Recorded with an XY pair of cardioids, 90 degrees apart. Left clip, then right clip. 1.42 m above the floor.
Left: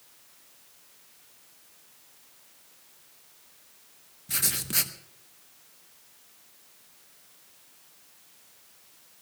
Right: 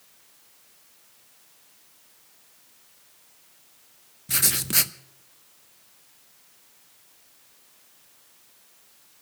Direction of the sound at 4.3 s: 40° right.